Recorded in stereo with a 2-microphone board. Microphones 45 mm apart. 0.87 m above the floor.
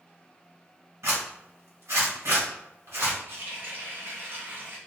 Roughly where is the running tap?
Right.